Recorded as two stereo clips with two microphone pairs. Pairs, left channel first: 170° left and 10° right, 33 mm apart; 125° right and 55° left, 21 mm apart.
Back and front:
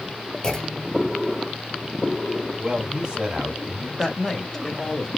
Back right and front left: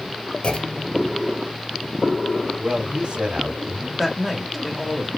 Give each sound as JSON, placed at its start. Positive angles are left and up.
{"t": 0.4, "sound": "a clunk", "azimuth_deg": -125, "distance_m": 1.1}
{"t": 2.6, "sound": "a man speaking", "azimuth_deg": 55, "distance_m": 2.0}
{"t": 4.0, "sound": "a woman speaking", "azimuth_deg": 115, "distance_m": 1.5}